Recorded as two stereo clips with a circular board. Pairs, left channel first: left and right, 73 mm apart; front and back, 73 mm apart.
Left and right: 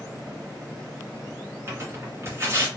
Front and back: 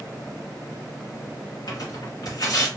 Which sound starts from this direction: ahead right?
Tearing paper, at 1.7 s.